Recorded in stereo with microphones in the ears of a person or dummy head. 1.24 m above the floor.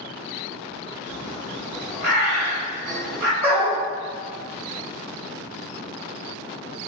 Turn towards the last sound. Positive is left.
turn(degrees=-35)  # may be behind; listen again after turning